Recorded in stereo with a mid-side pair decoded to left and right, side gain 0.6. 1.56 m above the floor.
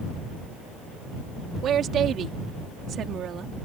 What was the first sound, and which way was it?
A woman speaking, 50° right.